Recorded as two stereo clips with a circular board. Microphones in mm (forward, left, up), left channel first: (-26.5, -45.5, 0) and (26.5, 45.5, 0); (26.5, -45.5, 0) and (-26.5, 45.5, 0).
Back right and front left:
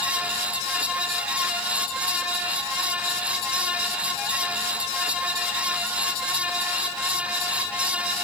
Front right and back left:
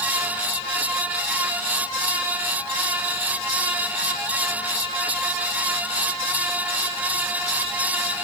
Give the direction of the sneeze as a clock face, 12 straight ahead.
I don't hear a sneeze.